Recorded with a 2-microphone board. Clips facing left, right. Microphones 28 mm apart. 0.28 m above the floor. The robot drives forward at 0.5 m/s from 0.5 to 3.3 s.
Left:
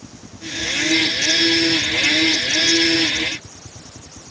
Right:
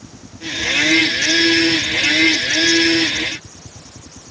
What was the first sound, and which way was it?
Only background noise.